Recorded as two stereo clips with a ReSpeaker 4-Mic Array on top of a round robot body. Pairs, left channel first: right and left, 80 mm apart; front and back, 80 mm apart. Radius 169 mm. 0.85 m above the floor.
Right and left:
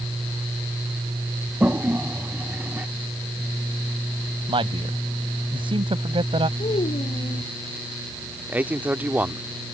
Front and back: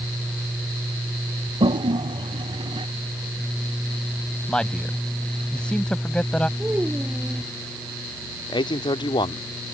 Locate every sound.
1.6 s a toilet flushing: 160° left
4.5 s a man speaking: 80° left
6.6 s a child speaking: 105° right
8.5 s a man speaking: 20° left